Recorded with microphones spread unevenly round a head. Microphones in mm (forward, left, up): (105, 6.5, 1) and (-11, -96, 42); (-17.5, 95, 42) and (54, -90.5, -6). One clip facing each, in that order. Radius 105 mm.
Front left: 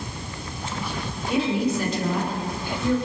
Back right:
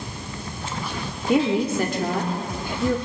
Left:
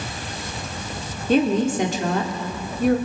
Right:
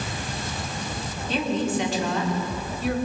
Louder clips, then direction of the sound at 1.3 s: Back right 3 dB, left 7 dB; 165° left.